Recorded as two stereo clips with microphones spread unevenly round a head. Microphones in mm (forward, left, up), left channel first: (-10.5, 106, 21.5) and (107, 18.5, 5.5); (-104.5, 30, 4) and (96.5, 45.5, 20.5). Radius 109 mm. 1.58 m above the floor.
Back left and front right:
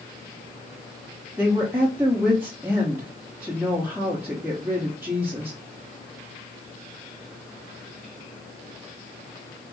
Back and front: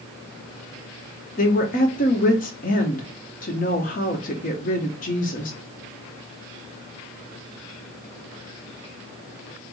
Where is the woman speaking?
120° right, 0.9 m.